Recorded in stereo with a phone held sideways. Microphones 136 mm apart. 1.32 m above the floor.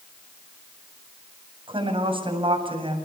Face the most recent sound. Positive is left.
turn(degrees=-40)  # may be behind; listen again after turning